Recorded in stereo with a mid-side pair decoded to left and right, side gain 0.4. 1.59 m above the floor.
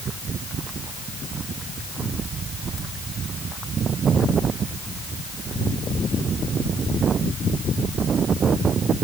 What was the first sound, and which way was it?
Only background noise.